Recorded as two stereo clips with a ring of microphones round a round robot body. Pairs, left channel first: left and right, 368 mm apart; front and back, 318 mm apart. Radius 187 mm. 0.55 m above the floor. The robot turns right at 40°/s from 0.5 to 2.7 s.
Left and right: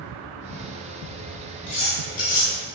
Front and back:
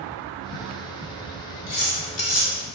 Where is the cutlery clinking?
35° left, 1.4 m; by 2.5 s 70° left, 1.4 m.